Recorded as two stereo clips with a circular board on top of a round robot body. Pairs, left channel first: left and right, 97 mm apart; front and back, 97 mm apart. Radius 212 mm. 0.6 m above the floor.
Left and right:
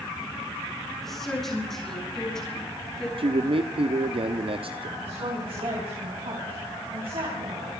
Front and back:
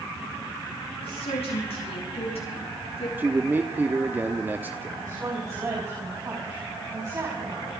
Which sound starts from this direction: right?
A man speaking, at 3.2 s.